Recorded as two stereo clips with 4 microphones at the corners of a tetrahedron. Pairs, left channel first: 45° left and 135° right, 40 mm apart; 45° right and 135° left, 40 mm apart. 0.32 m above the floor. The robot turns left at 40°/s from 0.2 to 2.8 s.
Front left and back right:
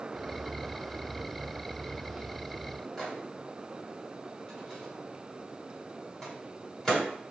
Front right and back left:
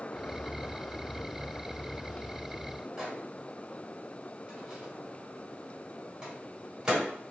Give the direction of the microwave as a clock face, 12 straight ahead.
9 o'clock.